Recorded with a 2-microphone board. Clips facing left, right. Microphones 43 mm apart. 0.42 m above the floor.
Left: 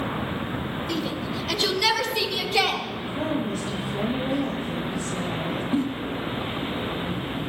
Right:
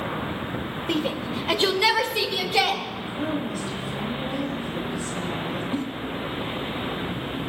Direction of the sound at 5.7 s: 15° left (ahead or behind).